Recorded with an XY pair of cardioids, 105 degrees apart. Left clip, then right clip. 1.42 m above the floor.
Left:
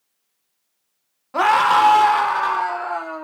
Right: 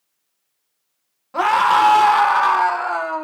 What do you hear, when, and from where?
1.3 s a scream: 15° left, 0.7 m; by 3.2 s 65° right, 0.8 m